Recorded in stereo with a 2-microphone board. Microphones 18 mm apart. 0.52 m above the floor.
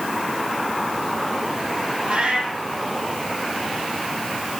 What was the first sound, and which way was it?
A cat meowing, 85° right.